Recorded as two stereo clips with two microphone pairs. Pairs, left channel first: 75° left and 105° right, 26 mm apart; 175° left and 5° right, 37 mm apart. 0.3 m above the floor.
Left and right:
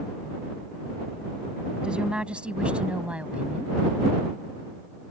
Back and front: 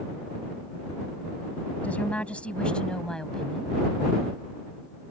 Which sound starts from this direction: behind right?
A woman speaking, at 1.8 s.